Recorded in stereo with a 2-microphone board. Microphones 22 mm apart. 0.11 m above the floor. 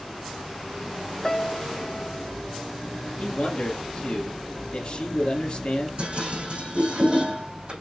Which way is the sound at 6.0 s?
50° right (ahead or behind).